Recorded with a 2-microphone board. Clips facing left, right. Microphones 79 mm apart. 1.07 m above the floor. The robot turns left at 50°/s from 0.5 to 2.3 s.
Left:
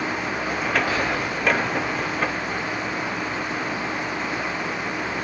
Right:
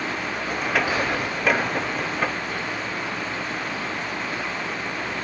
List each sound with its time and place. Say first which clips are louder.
0.9 s whispering: even; 15° right (ahead or behind), 3.5 m; by 1.3 s 5° left (ahead or behind), 3.5 m